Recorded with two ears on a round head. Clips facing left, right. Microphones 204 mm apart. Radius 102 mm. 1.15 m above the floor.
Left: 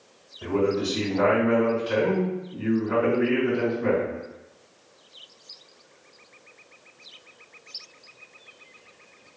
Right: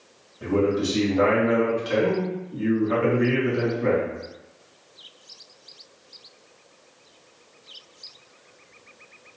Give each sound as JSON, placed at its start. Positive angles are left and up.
{"t": 0.4, "sound": "a man speaking", "side_deg": -45, "distance_m": 1.8}